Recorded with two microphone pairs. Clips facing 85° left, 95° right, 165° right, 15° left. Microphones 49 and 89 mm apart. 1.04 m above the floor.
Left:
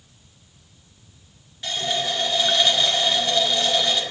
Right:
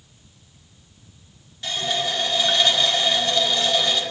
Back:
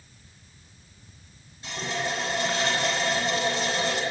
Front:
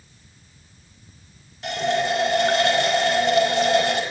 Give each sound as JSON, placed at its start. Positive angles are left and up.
{"t": 1.6, "sound": "a running tap", "azimuth_deg": 10, "distance_m": 4.5}